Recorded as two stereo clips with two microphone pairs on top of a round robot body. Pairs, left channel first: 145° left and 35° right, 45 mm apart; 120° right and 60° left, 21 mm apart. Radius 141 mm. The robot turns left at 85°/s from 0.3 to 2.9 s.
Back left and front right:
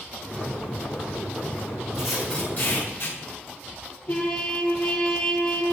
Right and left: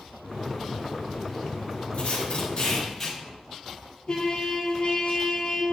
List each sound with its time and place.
1.9 s tape being pulled: 110° right, 5 m; by 3.2 s 165° left, 5 m
4.1 s a trumpet: 160° right, 2 m